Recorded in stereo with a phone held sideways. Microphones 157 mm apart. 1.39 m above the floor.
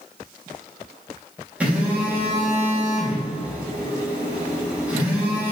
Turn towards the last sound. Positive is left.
turn(degrees=-10)  # may be behind; listen again after turning